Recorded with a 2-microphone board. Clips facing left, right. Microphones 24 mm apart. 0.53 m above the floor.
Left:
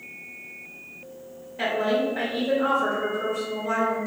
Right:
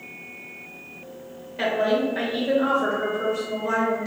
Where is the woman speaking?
35° right (ahead or behind), 1.7 m.